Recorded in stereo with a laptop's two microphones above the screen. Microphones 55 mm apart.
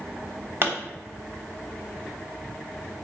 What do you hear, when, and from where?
0.6 s a pop: 45° right (ahead or behind), 1.0 m